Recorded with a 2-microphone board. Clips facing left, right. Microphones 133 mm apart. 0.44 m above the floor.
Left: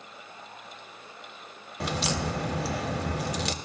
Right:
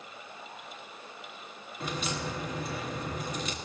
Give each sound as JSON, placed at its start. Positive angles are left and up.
{"t": 1.8, "sound": "a crack", "side_deg": 80, "distance_m": 0.6}